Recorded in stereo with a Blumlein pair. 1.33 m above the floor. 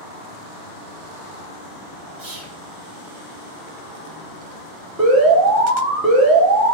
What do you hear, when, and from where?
2.2 s whispering: 55° right, 1.8 m
5.0 s an alarm: 30° right, 1.5 m